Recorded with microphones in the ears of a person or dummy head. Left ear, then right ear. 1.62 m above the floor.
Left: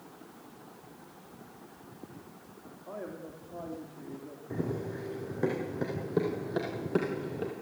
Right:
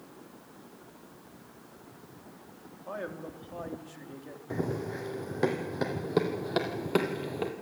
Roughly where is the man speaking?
Right.